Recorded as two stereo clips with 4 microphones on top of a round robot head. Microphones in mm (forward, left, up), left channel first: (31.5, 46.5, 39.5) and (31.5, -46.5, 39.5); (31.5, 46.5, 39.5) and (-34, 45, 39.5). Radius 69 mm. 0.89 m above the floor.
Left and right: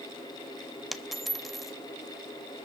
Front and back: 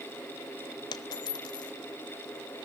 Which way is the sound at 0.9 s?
Straight ahead.